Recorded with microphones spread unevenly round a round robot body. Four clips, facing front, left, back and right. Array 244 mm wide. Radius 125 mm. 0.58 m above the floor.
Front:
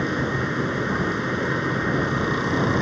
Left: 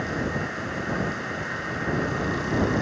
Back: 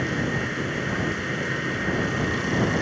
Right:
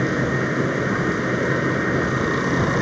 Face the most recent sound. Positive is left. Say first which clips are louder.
# right 7 dB, front 2 dB
turn(degrees=-70)